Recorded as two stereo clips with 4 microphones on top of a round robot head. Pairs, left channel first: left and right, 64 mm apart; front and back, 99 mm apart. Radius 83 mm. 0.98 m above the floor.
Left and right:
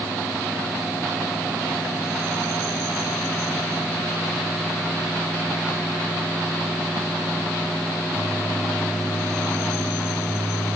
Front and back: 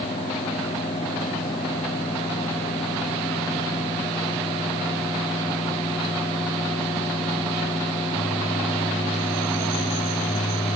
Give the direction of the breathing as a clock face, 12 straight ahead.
I don't hear breathing.